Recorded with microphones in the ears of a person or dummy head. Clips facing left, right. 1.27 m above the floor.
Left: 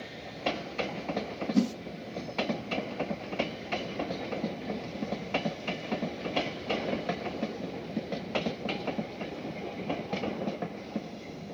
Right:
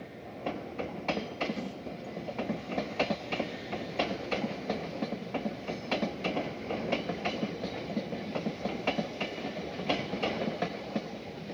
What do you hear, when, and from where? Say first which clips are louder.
1.5 s a whoosh: left 11 dB; 65° left (ahead or behind), 1.7 m